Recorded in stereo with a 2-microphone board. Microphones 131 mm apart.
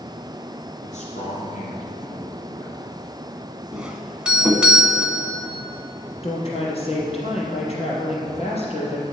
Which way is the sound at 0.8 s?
65° left (ahead or behind).